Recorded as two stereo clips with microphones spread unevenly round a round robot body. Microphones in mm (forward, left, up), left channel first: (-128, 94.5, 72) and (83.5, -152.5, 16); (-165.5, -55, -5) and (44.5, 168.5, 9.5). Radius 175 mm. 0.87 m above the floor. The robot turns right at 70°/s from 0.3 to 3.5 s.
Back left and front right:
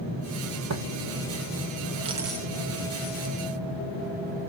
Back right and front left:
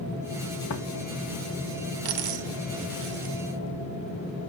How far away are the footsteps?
About 1.8 m.